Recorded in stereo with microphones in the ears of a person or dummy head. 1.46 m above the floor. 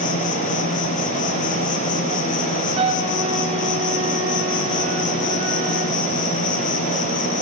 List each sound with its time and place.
0.0 s an insect: 35° left (ahead or behind), 0.9 m
2.8 s a flute: 30° right (ahead or behind), 1.9 m